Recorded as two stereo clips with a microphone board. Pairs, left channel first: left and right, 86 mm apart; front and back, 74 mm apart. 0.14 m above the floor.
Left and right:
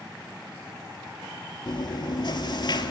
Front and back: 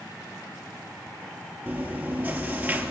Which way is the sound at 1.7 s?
115° left.